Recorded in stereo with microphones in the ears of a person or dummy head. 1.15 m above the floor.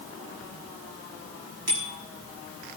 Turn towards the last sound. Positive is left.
turn(degrees=-50)  # may be behind; listen again after turning